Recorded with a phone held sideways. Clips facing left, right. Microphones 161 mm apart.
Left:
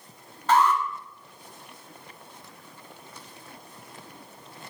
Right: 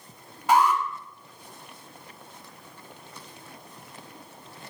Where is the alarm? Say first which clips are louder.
Even; 10° right (ahead or behind), 2 m.